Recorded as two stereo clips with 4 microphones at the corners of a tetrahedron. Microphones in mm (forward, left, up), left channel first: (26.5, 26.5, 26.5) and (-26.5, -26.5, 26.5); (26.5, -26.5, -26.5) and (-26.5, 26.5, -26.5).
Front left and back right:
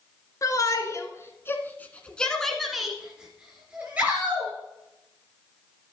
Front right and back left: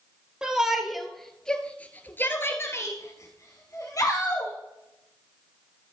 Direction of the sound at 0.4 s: 60° left.